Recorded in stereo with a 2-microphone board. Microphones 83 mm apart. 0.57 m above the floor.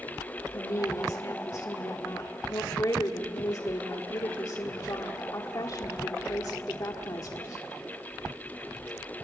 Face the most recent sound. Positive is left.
turn(degrees=50)  # may be behind; listen again after turning